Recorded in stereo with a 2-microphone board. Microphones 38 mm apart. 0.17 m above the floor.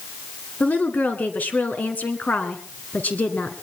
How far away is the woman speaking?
About 1.9 m.